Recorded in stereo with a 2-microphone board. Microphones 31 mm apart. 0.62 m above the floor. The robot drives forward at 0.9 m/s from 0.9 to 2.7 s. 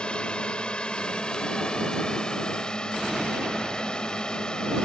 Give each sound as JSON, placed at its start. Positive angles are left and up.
{"t": 0.0, "sound": "a drone", "side_deg": 35}